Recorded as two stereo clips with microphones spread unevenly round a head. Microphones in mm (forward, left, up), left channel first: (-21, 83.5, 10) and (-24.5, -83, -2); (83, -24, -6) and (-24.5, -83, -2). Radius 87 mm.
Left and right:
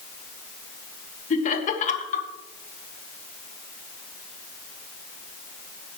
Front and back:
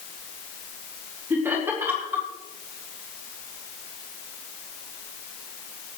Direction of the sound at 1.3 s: 130° left.